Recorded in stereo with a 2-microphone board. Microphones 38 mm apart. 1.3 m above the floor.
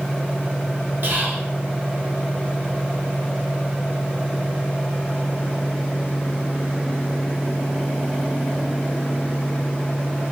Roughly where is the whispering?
Right.